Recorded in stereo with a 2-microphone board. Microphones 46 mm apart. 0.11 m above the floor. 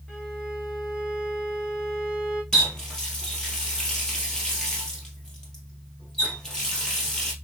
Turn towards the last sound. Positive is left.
turn(degrees=15)  # may be behind; listen again after turning